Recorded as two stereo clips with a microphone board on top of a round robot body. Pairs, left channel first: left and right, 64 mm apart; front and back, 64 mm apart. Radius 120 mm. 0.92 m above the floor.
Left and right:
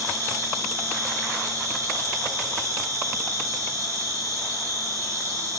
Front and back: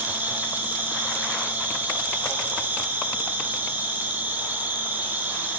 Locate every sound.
0.0 s an insect: 120° right, 3.5 m